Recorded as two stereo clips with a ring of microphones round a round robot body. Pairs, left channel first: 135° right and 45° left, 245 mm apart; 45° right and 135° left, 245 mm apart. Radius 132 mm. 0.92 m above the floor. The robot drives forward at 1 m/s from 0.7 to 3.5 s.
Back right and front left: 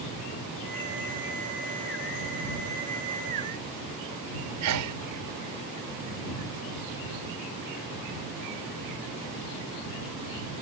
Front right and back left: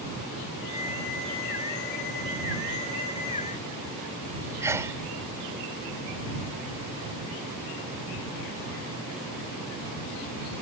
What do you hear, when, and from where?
4.6 s a sneeze: 55° left